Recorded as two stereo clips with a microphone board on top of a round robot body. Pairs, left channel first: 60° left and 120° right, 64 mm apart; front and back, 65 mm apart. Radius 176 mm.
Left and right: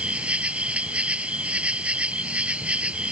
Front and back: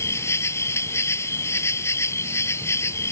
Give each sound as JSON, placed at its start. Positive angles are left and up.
{"t": 0.0, "sound": "an insect", "azimuth_deg": -50}